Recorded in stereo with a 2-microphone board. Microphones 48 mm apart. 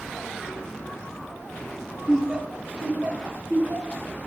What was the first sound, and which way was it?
Laughter, 5° right (ahead or behind).